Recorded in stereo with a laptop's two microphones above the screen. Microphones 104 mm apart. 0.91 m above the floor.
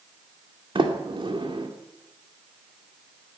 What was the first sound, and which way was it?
A sliding door, 55° right (ahead or behind).